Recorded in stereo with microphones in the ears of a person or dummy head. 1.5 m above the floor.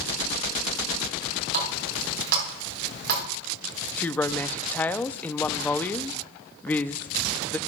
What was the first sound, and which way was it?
A running tap, 60° right (ahead or behind).